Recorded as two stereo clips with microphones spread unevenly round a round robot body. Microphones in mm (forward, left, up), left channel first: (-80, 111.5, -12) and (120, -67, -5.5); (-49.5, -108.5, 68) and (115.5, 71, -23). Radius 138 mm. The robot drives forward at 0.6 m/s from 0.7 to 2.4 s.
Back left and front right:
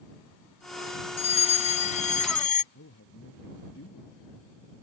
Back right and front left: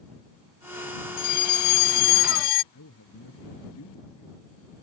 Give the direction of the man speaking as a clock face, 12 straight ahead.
6 o'clock.